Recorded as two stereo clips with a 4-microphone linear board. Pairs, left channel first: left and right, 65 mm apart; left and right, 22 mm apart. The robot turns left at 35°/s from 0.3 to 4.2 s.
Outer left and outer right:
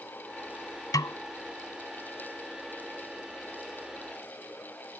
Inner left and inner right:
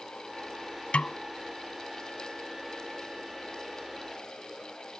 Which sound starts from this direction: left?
A snare drum, at 0.9 s.